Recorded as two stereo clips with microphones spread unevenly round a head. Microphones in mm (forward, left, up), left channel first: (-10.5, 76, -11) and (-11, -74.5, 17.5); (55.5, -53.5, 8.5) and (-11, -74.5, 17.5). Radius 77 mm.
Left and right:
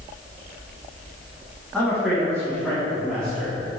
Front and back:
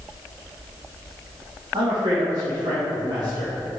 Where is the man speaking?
175° right, 3.5 m.